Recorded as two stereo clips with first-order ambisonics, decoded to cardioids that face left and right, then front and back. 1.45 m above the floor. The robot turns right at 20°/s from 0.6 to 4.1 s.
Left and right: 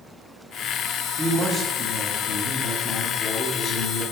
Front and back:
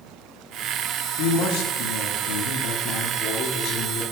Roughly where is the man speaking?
Ahead.